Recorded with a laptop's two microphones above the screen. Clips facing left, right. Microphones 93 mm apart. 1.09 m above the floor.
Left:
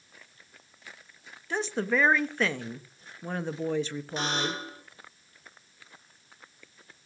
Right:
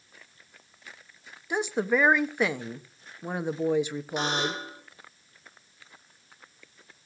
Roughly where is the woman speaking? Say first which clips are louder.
Right 2 dB; centre.